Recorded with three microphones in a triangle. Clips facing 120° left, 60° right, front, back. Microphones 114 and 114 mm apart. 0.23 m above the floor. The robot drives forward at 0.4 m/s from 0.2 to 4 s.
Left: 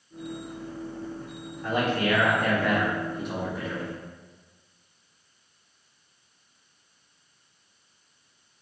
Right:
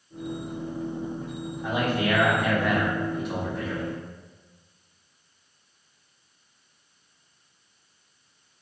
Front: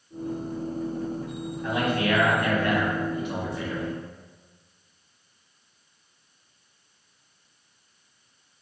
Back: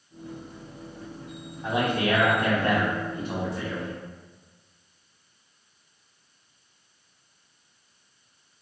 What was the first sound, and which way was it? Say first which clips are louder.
A man speaking: even, back 1 dB; 125° right.